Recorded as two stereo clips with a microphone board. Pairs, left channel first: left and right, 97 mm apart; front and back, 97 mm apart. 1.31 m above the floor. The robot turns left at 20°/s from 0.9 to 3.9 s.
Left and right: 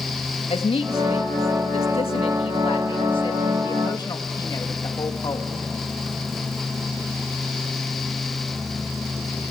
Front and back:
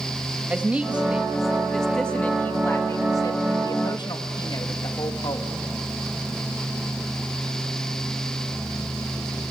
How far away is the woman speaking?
About 1.7 m.